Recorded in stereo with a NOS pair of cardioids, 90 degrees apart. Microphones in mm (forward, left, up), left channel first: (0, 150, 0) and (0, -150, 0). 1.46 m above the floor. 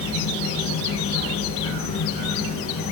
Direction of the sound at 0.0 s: 50° left.